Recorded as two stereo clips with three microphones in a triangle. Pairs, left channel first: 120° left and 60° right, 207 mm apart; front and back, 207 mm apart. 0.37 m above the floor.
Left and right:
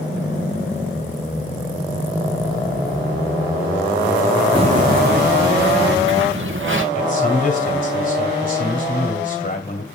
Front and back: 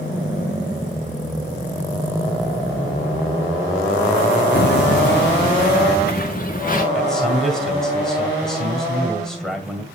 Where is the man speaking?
90° left, 2 m.